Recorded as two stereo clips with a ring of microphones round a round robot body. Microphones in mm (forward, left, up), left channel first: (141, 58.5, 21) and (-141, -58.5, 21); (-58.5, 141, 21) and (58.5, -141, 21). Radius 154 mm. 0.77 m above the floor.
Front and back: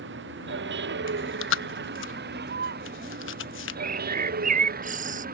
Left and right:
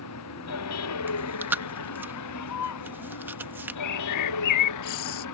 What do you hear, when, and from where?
0.0 s a vehicle: 150° left; by 5.4 s 140° left
1.1 s chewing: 15° left
3.8 s a bird: 140° left